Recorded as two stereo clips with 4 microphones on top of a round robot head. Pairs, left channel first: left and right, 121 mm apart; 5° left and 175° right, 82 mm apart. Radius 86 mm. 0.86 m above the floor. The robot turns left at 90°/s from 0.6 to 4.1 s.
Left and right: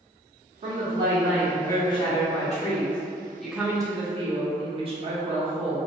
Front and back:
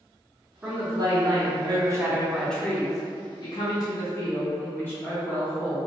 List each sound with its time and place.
0.6 s a woman speaking: 105° right, 0.6 m; by 5.8 s 60° right, 0.6 m